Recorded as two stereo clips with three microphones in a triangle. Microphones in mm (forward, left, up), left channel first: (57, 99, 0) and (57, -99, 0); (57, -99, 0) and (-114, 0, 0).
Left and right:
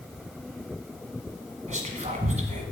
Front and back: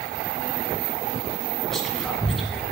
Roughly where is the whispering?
Behind right.